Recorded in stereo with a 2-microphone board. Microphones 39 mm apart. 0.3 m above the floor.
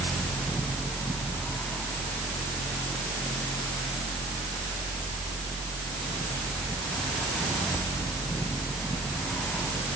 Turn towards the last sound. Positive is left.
No sound to turn to.